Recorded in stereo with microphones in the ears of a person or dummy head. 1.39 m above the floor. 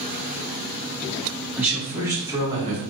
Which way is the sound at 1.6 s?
5° right (ahead or behind).